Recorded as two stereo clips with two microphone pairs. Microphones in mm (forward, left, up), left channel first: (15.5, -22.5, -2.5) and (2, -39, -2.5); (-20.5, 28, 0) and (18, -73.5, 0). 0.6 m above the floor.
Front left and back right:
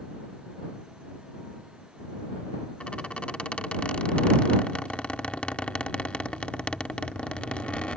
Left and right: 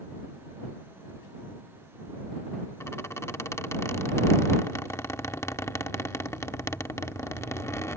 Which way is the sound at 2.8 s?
50° left.